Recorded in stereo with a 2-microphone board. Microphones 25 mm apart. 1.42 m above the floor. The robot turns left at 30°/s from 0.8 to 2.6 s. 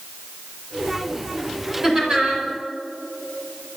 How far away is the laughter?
About 5 m.